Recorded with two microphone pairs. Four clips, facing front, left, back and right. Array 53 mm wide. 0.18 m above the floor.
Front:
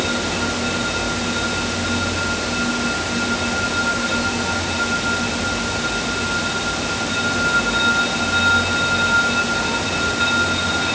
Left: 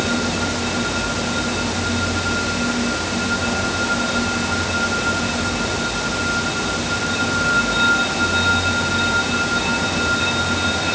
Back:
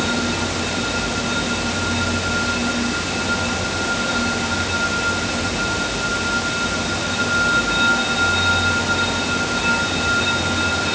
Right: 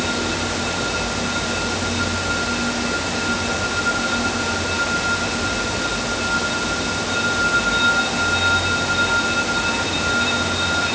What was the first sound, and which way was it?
Only background noise.